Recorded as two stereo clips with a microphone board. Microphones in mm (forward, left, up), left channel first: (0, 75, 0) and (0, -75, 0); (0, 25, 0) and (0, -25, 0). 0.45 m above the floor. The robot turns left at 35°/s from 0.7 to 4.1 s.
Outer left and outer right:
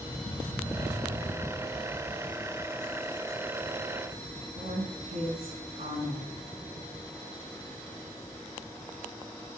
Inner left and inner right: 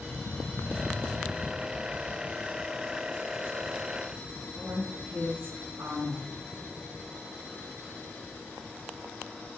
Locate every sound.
4.5 s a woman speaking: 45° right (ahead or behind), 5.5 m